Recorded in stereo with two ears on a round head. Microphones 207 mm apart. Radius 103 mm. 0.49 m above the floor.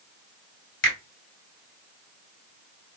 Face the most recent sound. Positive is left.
turn(degrees=55)  # may be behind; listen again after turning